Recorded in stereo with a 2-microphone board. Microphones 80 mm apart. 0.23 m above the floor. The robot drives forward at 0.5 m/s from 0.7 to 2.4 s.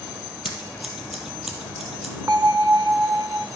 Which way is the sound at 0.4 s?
5° right (ahead or behind).